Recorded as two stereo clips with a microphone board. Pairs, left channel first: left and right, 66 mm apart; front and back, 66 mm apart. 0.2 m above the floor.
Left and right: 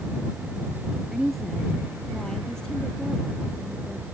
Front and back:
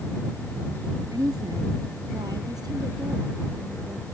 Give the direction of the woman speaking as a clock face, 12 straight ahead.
6 o'clock.